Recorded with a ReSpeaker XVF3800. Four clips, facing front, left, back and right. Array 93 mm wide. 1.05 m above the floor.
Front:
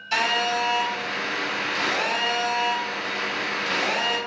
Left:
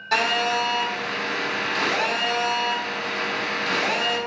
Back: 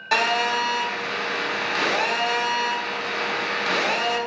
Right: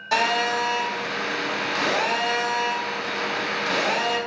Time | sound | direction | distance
0.1 | a phone buzzing | 170° right | 1.0 m